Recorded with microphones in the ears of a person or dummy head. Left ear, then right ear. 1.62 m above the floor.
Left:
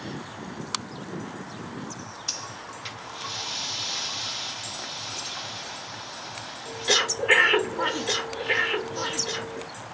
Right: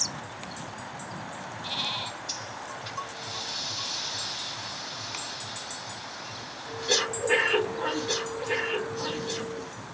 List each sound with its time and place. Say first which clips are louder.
2.3 s breathing: left 2 dB; 50° left (ahead or behind), 0.6 m